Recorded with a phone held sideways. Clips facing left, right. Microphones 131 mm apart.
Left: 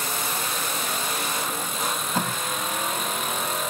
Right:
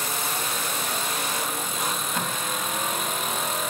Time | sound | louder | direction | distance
1.8 | tape being pulled | left 3 dB | 35° left (ahead or behind) | 1.0 m